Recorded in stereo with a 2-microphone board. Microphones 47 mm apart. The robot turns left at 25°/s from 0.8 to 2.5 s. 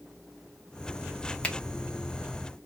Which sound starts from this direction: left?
A finger snap, at 1.4 s.